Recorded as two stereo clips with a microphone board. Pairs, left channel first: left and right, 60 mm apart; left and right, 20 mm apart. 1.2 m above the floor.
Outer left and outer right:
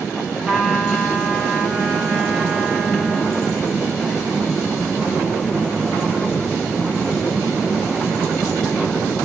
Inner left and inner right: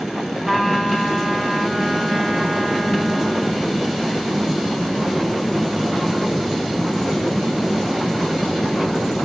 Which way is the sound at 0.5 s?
Centre (ahead or behind).